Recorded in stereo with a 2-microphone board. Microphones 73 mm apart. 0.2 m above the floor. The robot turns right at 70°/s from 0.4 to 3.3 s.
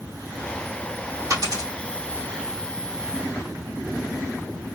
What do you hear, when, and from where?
1.3 s a dropped coin: 45° right (ahead or behind), 3 m; by 1.7 s 75° right (ahead or behind), 3 m